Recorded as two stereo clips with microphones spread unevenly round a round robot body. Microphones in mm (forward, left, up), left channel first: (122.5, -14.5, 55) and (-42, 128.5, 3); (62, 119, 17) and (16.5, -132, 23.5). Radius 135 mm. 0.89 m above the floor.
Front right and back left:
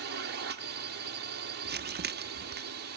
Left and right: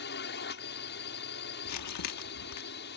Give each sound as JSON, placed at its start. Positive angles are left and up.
{"t": 0.0, "sound": "a drone", "azimuth_deg": 125}
{"t": 1.6, "sound": "crumpling", "azimuth_deg": 100}